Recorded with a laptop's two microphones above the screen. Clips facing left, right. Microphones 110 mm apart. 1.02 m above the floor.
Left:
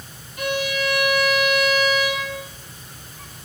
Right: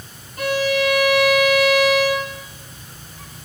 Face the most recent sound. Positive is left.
turn(degrees=-40)  # may be behind; listen again after turning